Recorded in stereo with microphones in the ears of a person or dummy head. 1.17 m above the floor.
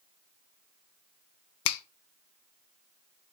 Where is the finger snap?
65° left (ahead or behind), 0.6 m.